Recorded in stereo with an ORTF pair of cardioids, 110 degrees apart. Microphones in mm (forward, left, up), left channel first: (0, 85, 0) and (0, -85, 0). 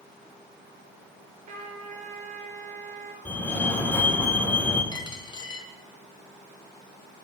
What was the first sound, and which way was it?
A trumpet, 45° right.